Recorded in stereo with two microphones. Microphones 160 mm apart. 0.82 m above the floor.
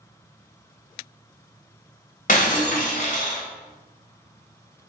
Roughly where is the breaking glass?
Left.